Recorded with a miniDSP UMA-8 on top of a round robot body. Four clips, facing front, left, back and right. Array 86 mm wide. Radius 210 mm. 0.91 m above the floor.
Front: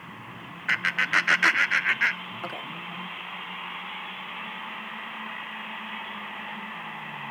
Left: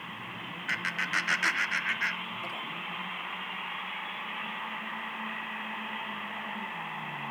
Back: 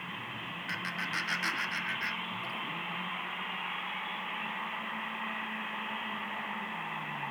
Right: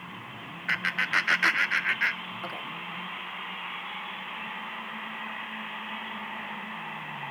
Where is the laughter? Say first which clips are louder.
Right 4 dB, front 12 dB; 15° right, 0.9 m.